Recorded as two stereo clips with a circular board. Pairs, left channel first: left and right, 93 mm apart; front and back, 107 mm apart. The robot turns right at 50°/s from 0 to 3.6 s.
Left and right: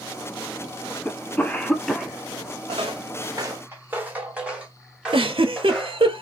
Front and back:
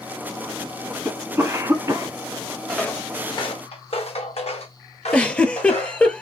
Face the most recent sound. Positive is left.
turn(degrees=-80)